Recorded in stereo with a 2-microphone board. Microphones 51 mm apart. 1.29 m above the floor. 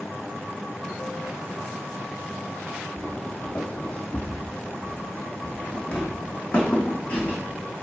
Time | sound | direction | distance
3.0 | footsteps | 25° left (ahead or behind) | 1.6 m